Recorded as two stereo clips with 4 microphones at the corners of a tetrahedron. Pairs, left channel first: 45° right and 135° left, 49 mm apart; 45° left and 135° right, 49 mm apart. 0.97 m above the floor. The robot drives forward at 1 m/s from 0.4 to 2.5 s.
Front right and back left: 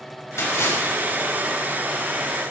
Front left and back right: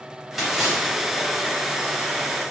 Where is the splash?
50° right, 5 m; by 1.0 s 55° right, 4.5 m.